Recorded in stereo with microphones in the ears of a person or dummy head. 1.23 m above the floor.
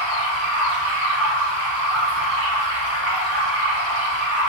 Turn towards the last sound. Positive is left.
turn(degrees=-45)  # may be behind; listen again after turning